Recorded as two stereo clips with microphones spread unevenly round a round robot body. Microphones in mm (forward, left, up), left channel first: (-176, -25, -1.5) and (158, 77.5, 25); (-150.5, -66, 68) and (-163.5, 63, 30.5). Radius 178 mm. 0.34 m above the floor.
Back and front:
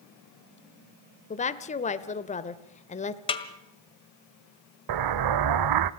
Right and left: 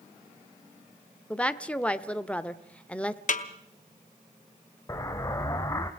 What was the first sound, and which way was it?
A woman speaking, 170° left.